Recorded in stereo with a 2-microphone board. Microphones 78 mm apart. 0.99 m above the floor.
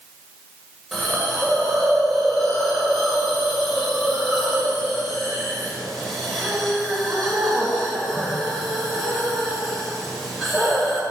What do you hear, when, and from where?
0.9 s a hiss: centre (ahead or behind), 2 m